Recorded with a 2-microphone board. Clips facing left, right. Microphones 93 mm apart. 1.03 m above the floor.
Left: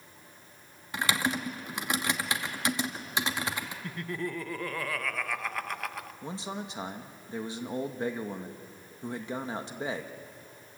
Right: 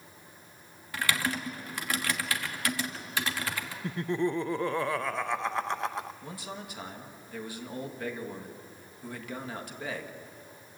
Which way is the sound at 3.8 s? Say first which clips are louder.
Right 8 dB; 25° right (ahead or behind).